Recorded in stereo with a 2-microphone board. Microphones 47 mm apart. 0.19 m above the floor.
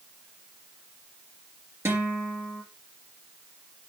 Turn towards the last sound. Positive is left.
turn(degrees=-70)  # may be behind; listen again after turning